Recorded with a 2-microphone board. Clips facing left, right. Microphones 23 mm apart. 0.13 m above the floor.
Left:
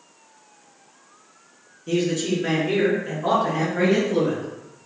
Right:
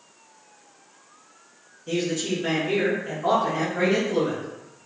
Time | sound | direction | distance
1.9 | a man speaking | 10° left (ahead or behind) | 1.4 m